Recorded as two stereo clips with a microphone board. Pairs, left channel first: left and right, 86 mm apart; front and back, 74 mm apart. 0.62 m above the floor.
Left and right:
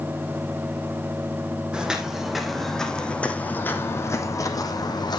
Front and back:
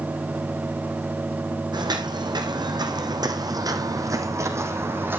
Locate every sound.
1.7 s footsteps: 170° right, 2 m; by 5.2 s 120° left, 1.7 m